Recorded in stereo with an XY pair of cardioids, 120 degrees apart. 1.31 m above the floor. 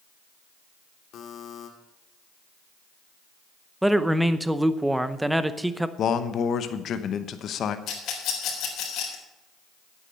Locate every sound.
1.1 s a buzzer: 65° left, 1.9 m
3.8 s a man speaking: 5° right, 0.7 m
6.0 s a man speaking: 55° left, 0.9 m
7.9 s a rattle: 70° left, 4 m